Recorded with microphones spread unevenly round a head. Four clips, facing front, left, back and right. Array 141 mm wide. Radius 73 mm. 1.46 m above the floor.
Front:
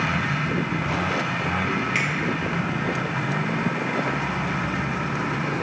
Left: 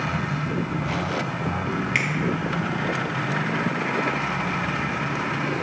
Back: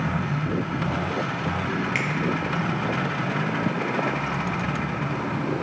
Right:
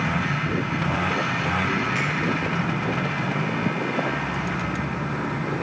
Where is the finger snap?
95° left, 3 m.